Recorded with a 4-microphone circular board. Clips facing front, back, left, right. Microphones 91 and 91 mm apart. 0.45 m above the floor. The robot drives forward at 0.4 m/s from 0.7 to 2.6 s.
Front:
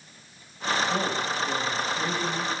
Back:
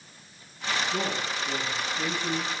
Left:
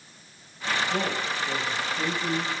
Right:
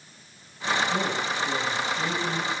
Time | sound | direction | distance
0.9 | a man speaking | 20° left | 3 m